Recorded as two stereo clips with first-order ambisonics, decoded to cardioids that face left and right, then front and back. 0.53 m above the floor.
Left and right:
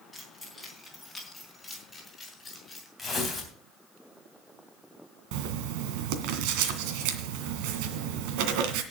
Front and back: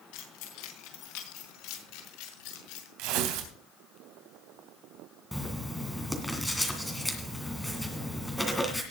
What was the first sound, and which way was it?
Keys jangling, straight ahead.